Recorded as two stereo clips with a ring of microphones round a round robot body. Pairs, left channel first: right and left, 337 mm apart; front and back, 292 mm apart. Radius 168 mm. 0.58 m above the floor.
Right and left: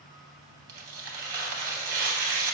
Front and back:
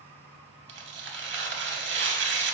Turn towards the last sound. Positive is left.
turn(degrees=135)